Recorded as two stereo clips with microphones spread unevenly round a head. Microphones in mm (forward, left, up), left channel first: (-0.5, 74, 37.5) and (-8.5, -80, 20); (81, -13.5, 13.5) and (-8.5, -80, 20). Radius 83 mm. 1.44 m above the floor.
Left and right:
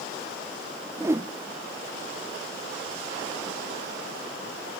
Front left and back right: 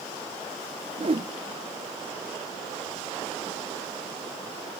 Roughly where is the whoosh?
Behind.